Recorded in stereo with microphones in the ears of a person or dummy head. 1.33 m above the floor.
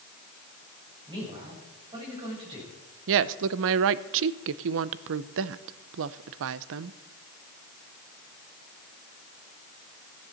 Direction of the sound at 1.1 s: 25° right (ahead or behind).